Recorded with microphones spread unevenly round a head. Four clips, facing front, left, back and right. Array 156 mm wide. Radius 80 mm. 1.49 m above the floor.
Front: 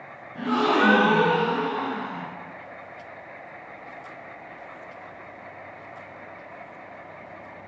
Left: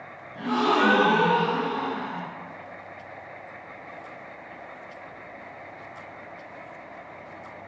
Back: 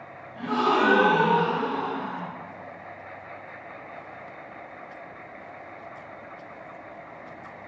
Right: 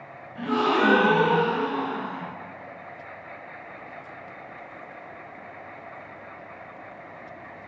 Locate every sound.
0.3 s a gasp: straight ahead, 1.0 m